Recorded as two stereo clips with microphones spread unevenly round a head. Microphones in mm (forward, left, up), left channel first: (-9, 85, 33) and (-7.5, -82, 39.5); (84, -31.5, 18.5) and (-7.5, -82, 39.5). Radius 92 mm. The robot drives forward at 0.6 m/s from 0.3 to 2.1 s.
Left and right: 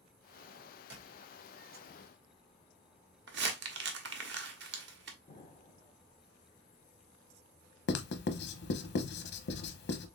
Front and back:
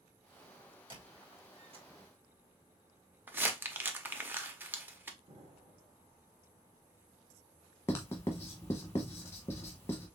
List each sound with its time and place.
0.9 s a squeak: 110° right, 2 m; by 1.9 s 125° right, 2.5 m
3.3 s crumpling: 90° right, 0.8 m
5.3 s an explosion: 150° left, 1.2 m
7.9 s writing: 95° left, 0.7 m